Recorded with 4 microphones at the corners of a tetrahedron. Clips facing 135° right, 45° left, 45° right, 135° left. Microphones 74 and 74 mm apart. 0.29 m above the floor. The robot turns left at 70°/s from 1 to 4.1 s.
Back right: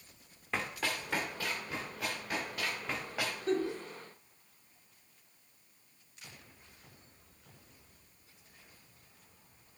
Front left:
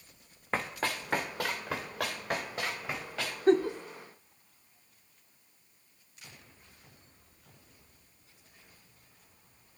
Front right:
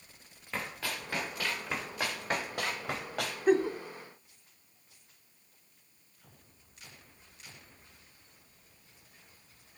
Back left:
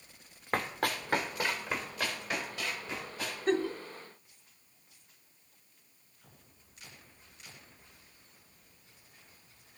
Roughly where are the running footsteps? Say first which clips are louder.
Front left 3 dB, back left 5 dB; left.